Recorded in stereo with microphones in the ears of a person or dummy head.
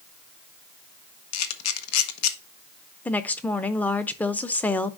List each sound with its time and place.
1.3 s a camera shutter: 80° left, 1.1 m
3.0 s a woman speaking: 15° left (ahead or behind), 0.5 m